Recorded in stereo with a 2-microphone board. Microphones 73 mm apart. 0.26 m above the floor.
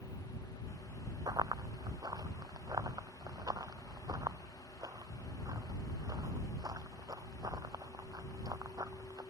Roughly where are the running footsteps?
Right.